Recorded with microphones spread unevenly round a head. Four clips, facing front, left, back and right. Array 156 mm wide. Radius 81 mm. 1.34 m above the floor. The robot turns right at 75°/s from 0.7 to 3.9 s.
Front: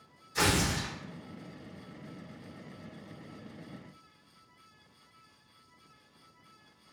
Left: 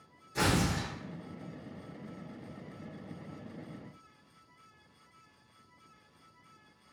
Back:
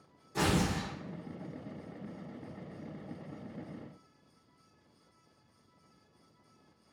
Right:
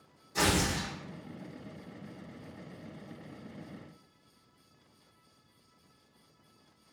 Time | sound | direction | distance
0.3 | tearing paper | 175° right | 1.5 m